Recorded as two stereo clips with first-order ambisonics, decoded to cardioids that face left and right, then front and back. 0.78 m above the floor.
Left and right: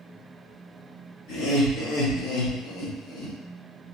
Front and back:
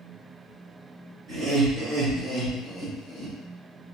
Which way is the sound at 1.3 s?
120° left.